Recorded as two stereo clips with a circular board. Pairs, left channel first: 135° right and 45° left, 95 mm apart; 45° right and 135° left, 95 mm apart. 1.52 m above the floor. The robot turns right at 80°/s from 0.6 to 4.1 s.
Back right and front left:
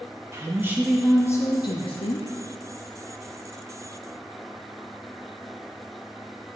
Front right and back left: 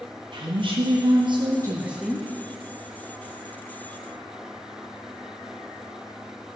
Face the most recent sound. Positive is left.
turn(degrees=25)